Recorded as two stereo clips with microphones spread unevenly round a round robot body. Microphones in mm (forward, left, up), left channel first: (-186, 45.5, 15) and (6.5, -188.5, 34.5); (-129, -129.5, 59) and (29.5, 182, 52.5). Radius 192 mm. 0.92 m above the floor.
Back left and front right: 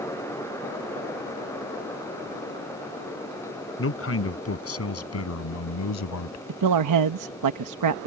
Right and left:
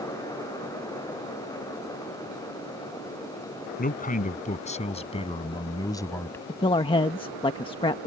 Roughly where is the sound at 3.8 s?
Behind.